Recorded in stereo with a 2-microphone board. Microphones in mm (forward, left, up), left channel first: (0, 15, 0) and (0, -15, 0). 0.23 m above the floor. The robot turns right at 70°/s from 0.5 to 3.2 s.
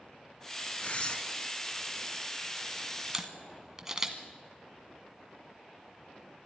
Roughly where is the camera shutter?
Centre.